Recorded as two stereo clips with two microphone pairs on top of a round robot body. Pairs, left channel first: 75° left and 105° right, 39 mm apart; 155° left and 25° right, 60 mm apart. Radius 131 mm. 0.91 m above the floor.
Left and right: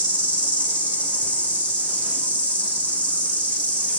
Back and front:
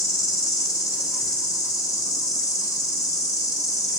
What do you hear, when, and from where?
0.0 s an insect: 135° left, 2.5 m